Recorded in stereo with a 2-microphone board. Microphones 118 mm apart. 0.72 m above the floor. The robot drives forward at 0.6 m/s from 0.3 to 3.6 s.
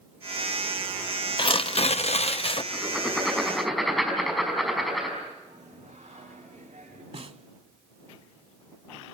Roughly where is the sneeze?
I don't hear a sneeze.